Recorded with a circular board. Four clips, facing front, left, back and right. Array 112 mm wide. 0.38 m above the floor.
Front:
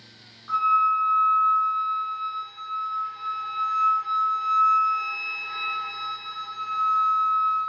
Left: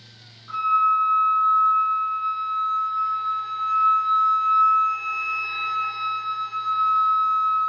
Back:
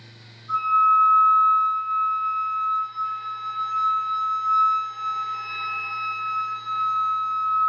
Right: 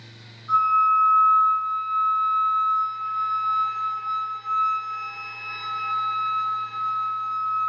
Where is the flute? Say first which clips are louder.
Right 1 dB, back 2 dB; 10° left, 1.5 m.